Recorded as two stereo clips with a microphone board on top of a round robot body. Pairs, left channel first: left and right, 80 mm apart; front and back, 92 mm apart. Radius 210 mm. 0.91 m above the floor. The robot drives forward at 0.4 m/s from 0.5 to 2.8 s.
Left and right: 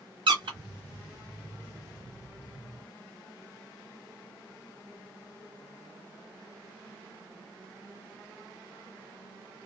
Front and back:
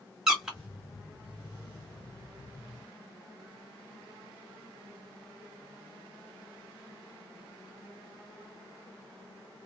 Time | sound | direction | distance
0.3 | a squeak | 95° right | 1.4 m